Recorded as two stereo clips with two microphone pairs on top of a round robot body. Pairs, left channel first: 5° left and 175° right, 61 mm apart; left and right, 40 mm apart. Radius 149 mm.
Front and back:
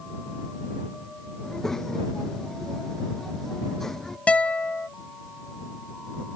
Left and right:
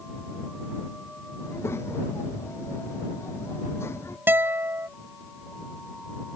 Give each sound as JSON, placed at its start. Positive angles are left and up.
{"t": 1.4, "sound": "a child speaking", "azimuth_deg": 90}
{"t": 4.3, "sound": "a guitar", "azimuth_deg": -65}